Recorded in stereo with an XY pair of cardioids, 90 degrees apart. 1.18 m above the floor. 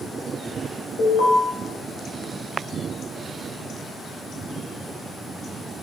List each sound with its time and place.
1.0 s an alarm: 55° left, 2.0 m